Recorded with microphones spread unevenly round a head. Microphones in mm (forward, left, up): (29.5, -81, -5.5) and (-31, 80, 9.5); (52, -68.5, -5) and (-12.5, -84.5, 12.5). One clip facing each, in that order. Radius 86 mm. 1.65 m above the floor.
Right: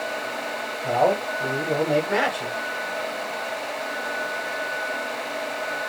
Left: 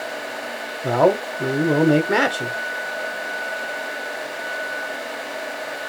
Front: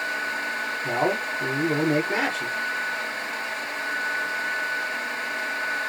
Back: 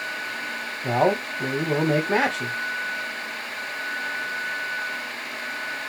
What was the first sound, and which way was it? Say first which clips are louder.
A man speaking: left 4 dB, back 4 dB; 140° left.